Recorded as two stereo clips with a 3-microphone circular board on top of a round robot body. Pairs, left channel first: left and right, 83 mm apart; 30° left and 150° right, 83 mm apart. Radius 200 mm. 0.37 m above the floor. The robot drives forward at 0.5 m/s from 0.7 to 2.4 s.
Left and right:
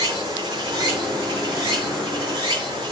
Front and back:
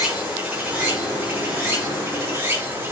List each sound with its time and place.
0.0 s running water: 75° right, 4 m; by 2.9 s 90° right, 4 m